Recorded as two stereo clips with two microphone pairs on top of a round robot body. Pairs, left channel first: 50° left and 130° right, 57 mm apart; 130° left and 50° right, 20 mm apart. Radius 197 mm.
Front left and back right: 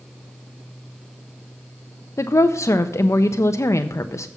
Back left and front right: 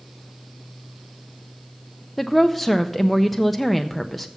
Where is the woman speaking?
45° left, 0.6 m.